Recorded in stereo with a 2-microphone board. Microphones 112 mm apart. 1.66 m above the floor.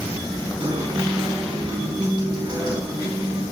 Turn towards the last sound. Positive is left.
turn(degrees=-40)  # may be behind; listen again after turning